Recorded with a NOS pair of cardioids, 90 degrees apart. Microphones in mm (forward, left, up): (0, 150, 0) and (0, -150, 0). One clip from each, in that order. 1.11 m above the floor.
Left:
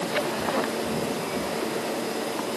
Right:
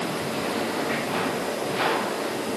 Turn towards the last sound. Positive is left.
No sound to turn to.